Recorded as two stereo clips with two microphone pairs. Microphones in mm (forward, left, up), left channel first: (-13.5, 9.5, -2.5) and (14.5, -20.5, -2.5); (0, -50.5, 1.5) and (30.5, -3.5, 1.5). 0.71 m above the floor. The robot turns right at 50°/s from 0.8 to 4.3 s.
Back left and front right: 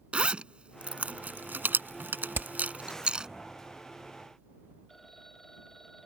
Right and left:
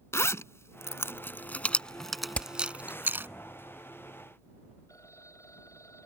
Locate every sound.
0.1 s a zipper: 100° right; by 3.3 s 20° left
2.4 s hammering: 60° right; by 2.5 s 55° right
4.9 s a phone ringing: 145° right